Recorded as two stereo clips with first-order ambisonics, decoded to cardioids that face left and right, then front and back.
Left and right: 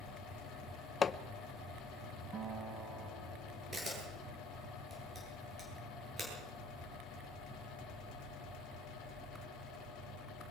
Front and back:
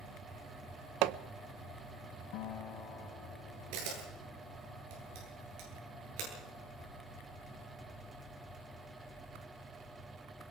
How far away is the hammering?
About 0.6 m.